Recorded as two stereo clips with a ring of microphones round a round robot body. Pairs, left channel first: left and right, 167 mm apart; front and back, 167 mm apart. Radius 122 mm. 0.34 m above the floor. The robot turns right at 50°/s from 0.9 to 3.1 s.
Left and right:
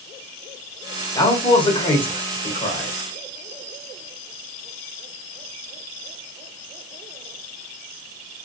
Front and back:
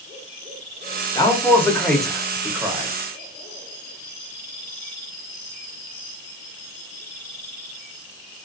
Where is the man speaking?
45° left, 1.1 m; by 2.9 s 130° left, 1.1 m.